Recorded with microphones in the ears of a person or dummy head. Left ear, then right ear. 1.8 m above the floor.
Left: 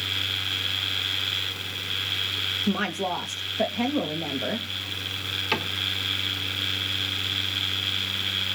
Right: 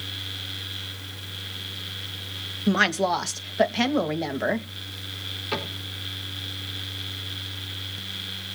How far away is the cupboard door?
About 5.5 m.